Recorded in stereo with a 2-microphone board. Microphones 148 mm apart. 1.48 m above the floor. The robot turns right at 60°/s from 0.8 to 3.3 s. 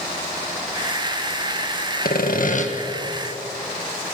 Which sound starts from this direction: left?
Sawing, at 2.0 s.